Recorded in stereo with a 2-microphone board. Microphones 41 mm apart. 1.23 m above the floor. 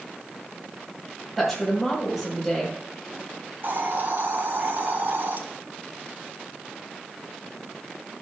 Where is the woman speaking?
Centre (ahead or behind), 4 m.